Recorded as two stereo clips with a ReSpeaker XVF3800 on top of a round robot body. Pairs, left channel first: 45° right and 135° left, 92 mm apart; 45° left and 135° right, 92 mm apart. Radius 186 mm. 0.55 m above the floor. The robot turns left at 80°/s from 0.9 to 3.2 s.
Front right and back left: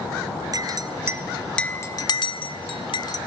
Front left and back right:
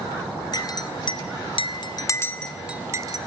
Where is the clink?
90° left, 0.9 m; by 3.2 s 95° right, 0.9 m.